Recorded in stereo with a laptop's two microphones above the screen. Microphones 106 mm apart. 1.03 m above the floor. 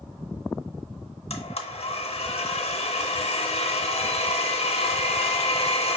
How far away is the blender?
About 0.7 m.